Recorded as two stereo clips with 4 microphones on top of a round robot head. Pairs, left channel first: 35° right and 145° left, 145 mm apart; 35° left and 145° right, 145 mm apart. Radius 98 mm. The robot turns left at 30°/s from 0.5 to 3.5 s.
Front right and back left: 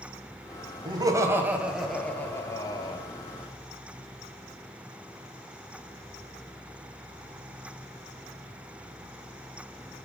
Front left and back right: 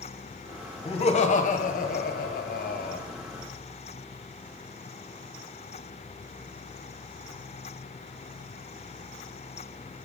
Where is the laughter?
85° left, 1.2 m; by 3.0 s 20° left, 1.2 m.